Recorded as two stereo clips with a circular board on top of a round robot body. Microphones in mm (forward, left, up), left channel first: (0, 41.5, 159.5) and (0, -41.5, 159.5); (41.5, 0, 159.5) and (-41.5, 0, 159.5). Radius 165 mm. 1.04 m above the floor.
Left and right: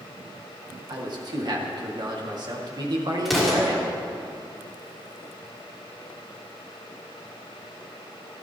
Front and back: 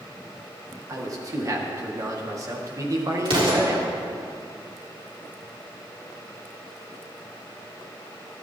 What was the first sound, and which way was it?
A man speaking, 130° right.